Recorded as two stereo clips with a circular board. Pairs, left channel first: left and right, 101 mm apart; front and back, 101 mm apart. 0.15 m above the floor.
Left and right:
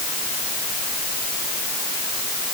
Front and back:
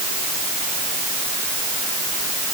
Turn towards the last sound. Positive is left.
No sound to turn to.